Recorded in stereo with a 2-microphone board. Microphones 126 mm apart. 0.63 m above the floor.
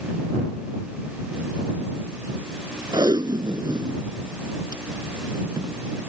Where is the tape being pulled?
35° right (ahead or behind).